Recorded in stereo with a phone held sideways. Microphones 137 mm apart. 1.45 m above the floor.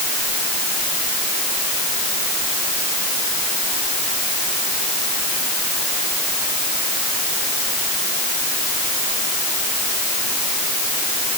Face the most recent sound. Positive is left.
No sound to turn to.